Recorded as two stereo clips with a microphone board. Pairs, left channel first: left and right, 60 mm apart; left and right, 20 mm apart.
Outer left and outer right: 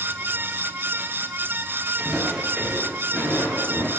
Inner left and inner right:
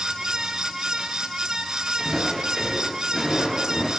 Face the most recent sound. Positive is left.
turn(degrees=45)  # may be behind; listen again after turning